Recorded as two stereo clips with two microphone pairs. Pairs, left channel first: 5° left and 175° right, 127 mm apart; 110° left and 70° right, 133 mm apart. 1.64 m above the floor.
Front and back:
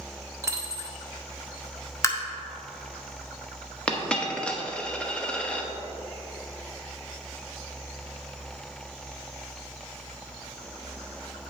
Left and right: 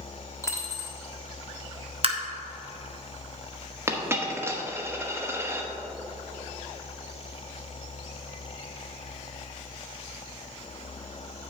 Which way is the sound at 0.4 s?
155° left.